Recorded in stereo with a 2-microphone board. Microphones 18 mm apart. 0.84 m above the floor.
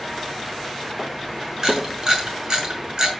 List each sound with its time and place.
1.6 s a camera shutter: 40° right (ahead or behind), 6.5 m